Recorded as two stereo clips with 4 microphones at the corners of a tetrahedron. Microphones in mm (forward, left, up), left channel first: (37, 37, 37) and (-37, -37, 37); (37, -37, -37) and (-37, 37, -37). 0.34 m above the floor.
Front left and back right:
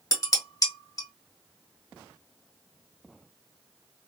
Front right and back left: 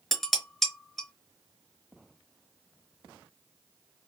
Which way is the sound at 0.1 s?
40° left.